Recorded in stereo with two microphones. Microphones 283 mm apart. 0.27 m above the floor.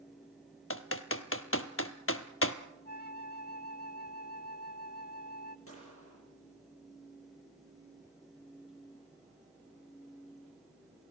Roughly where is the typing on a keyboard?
Left.